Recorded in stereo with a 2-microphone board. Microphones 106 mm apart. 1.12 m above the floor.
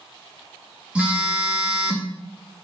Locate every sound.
0.9 s a phone buzzing: 10° right (ahead or behind), 1.9 m